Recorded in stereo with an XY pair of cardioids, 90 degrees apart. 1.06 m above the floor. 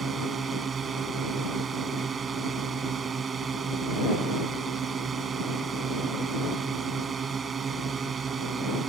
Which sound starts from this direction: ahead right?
A drone, at 0.0 s.